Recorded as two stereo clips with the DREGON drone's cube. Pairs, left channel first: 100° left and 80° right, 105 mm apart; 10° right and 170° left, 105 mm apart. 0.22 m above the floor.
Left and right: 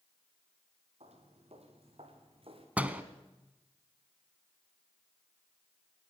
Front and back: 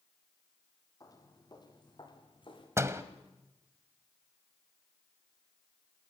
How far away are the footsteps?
About 5 m.